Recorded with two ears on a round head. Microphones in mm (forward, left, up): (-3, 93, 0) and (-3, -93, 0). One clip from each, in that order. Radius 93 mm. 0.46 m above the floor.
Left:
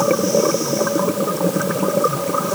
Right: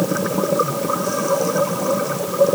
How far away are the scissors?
No scissors in this recording.